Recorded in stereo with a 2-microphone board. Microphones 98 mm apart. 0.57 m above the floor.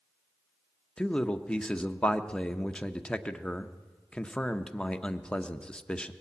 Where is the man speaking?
10° left (ahead or behind), 0.6 m.